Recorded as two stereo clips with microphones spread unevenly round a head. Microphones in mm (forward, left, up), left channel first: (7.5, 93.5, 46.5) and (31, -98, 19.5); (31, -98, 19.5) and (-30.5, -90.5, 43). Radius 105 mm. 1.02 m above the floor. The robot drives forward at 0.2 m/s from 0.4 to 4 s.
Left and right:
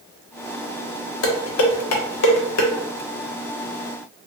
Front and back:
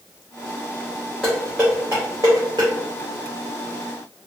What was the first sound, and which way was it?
Dishes clattering, 85° left.